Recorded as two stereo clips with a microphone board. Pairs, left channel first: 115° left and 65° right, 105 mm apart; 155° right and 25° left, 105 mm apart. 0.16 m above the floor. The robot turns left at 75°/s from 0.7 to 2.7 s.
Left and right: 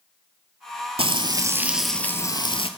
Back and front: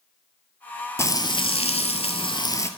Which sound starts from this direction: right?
Frying, at 1.0 s.